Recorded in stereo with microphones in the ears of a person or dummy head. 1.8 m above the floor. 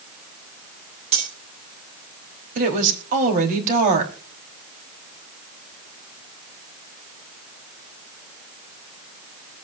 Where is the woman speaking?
45° right (ahead or behind), 4 m.